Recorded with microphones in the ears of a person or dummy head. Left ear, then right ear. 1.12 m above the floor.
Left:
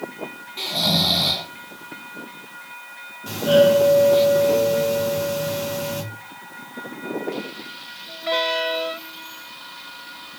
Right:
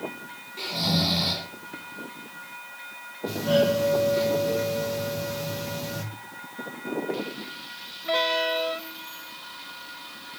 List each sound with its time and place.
0.6 s snoring: 15° left (ahead or behind), 1.9 m
3.3 s a doorbell: 40° left (ahead or behind), 2.5 m